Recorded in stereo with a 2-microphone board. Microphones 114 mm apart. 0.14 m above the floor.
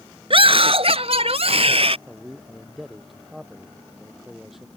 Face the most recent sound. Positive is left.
turn(degrees=0)  # may be behind; listen again after turning